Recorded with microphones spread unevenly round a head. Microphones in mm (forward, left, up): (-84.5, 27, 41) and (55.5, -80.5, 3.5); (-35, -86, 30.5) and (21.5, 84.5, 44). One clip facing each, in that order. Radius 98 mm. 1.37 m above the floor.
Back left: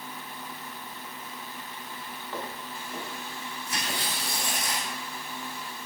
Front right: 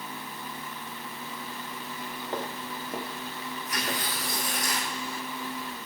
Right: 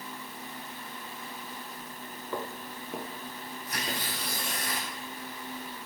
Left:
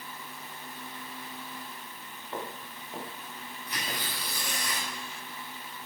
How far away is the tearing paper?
About 8 m.